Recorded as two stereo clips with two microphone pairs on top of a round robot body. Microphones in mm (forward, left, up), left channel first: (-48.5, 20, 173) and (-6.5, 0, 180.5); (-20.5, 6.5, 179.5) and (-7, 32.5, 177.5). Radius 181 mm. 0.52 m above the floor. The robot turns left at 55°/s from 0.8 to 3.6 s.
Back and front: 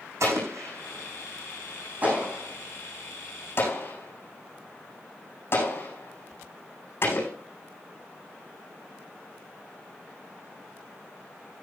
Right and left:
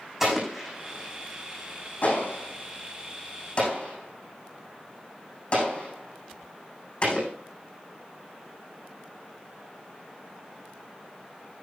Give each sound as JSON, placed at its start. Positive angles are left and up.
{"t": 0.2, "sound": "an explosion", "azimuth_deg": -15, "distance_m": 7.5}